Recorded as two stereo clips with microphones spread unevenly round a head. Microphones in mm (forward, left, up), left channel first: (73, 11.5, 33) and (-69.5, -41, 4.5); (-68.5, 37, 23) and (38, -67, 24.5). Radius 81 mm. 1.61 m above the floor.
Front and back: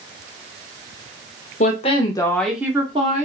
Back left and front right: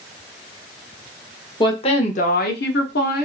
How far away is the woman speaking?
About 1.0 m.